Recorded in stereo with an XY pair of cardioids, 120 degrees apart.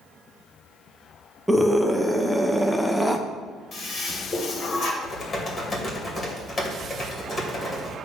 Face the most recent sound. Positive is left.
turn(degrees=25)